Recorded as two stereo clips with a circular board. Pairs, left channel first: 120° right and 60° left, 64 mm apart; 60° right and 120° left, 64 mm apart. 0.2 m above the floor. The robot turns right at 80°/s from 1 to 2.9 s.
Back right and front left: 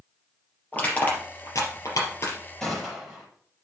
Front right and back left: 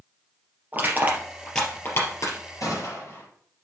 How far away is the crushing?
About 3.5 m.